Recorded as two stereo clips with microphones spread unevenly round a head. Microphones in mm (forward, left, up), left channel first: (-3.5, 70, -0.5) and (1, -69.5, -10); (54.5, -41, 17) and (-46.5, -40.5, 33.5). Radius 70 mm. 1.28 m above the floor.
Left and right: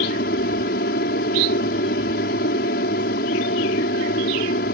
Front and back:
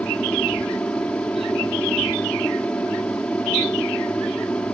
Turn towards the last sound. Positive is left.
turn(degrees=80)